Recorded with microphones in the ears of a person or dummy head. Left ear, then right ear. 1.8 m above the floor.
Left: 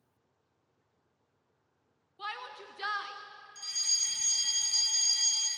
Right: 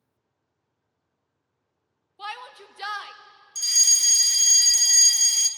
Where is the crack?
No crack in this recording.